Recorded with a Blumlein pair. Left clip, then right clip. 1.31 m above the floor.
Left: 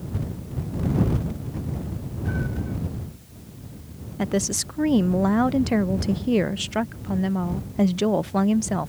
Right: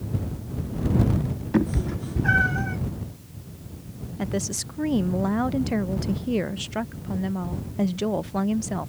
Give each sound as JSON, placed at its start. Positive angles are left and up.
{"t": 1.5, "sound": "a cat meowing", "azimuth_deg": -50}
{"t": 4.2, "sound": "a woman speaking", "azimuth_deg": 15}